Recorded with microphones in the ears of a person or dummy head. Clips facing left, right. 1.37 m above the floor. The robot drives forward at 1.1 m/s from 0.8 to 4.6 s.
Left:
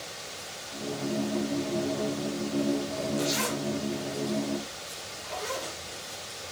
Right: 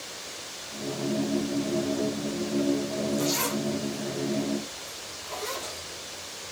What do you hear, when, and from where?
3.2 s a zipper: 25° left (ahead or behind), 1.4 m; by 5.8 s 10° left (ahead or behind), 3 m